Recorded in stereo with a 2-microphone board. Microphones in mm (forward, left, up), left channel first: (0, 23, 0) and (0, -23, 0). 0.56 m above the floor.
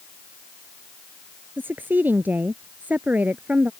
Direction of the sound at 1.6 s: 45° right (ahead or behind).